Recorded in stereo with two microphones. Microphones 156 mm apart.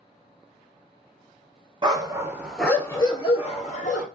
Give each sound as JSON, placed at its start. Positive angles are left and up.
{"t": 1.8, "sound": "a dog barking", "side_deg": -30, "distance_m": 0.9}